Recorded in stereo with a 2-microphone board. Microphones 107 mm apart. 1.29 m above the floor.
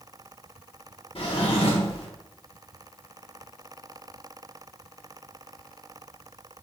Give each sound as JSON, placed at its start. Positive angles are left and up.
{"t": 1.1, "sound": "a drawer", "side_deg": 60, "distance_m": 1.2}